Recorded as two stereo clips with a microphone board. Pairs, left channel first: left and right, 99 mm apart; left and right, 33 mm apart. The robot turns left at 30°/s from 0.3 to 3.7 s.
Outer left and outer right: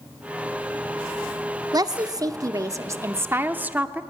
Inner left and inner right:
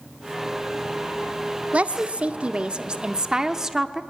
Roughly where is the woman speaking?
Right.